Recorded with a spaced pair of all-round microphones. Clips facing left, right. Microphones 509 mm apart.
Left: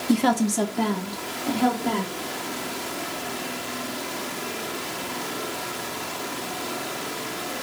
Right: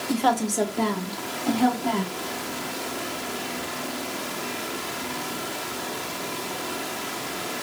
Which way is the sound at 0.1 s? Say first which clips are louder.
Left 4 dB; 55° left (ahead or behind).